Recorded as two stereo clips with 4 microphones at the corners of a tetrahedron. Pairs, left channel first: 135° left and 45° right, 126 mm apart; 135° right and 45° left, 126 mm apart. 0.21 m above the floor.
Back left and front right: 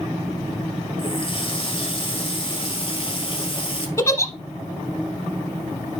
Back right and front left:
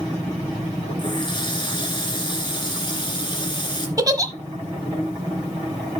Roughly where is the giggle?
Left.